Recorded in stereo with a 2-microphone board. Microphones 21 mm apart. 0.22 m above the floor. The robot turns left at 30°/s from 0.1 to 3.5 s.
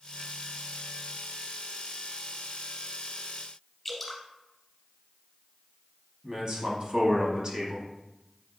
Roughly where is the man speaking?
Right.